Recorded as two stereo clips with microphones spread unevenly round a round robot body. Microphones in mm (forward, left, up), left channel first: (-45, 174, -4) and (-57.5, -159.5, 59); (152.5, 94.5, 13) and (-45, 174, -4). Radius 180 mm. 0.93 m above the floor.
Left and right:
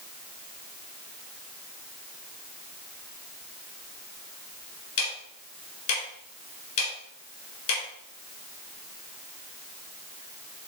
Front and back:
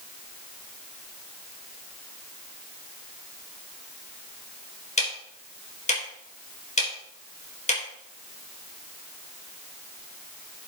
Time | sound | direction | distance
5.0 | ticking | 35° left | 4.5 m